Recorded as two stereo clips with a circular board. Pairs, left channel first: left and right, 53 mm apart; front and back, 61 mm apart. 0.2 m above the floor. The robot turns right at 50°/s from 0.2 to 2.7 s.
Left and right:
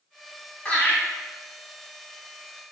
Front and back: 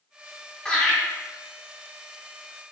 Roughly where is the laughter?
Ahead left.